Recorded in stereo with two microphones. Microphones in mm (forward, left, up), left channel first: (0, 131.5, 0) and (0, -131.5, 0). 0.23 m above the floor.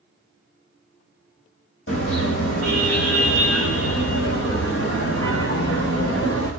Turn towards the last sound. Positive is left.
turn(degrees=60)  # may be behind; listen again after turning